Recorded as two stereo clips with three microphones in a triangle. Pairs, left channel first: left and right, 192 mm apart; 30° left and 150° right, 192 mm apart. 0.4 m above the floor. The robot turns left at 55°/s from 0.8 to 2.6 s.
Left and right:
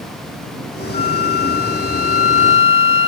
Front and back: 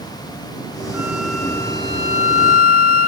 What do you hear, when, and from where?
0.9 s a flute: 135° left; by 3.1 s 45° left